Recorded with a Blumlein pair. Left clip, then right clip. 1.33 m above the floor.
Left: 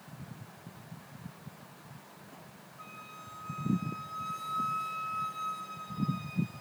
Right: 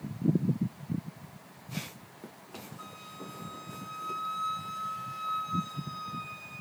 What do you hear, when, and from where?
2.8 s a flute: 15° right, 7.5 m